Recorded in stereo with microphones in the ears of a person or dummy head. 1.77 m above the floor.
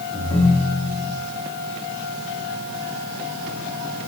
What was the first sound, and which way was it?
A ringtone, 25° left (ahead or behind).